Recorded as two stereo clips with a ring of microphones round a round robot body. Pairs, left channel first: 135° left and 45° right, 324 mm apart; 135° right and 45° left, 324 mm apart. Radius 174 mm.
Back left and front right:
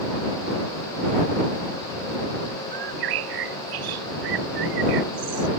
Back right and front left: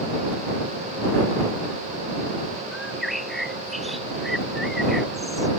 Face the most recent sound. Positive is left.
turn(degrees=-45)